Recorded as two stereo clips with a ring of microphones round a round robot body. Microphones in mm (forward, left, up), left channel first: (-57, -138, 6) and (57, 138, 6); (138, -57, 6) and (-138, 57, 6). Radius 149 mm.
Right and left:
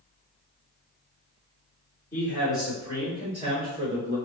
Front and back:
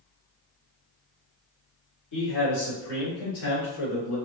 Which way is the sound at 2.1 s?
35° right.